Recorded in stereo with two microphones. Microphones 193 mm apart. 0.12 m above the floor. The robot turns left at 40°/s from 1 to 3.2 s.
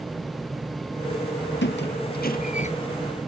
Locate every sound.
1.6 s a squeak: 65° left (ahead or behind), 1.2 m; by 2.7 s 35° left (ahead or behind), 1.2 m